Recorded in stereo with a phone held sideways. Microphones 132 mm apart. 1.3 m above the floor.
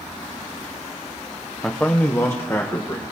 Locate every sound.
1.6 s a man speaking: 5° left (ahead or behind), 0.5 m; by 3.0 s 25° left (ahead or behind), 1.6 m